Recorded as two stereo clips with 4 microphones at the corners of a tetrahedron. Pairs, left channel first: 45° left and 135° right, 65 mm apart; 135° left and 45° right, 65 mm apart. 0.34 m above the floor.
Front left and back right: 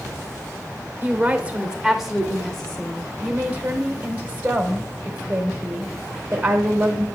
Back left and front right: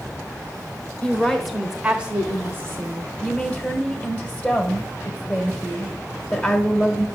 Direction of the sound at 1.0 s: 170° right.